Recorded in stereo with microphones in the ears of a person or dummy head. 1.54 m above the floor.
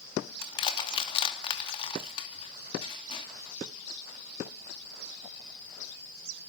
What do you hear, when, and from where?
0.4 s crushing: 30° left (ahead or behind), 2.5 m